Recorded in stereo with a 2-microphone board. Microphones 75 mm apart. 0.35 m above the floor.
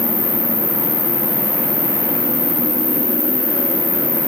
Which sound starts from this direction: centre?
An insect, at 0.0 s.